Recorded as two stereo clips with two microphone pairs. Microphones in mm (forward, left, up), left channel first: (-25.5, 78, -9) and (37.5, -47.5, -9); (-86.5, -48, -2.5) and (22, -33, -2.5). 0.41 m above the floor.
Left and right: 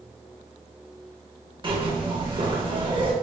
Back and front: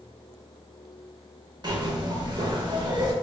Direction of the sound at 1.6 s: 25° right.